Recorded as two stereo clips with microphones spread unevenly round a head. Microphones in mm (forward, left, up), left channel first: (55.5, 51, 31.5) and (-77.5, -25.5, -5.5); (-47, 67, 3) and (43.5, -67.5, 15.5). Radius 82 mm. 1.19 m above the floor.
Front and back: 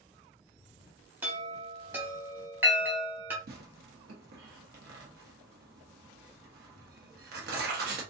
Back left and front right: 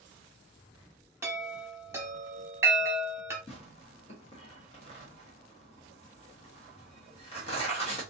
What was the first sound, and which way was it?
A chime, 55° right.